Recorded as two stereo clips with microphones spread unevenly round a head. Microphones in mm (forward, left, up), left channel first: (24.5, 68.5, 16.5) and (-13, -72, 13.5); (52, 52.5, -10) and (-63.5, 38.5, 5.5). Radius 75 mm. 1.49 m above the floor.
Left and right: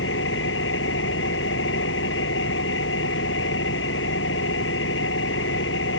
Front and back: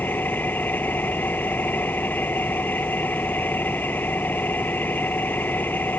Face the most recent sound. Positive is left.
turn(degrees=80)